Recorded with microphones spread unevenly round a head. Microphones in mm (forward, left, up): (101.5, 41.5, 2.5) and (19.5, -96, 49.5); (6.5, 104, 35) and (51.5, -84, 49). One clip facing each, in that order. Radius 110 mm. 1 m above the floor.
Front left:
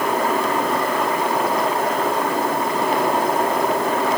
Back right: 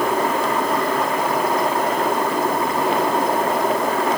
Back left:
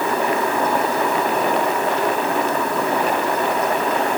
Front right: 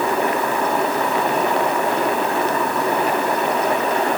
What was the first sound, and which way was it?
Only background noise.